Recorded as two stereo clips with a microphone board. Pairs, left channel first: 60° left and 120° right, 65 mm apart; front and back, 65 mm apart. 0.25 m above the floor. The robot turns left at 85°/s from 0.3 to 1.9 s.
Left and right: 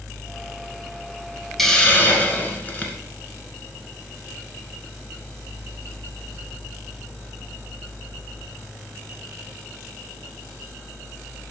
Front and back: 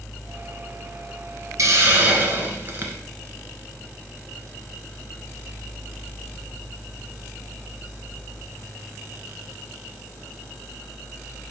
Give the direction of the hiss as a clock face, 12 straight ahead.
7 o'clock.